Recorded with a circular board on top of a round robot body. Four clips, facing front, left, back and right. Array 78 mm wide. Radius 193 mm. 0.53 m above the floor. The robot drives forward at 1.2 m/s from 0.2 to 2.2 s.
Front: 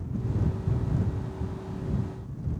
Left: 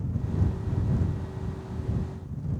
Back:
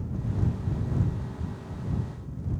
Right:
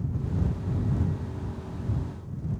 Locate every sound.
Only background noise.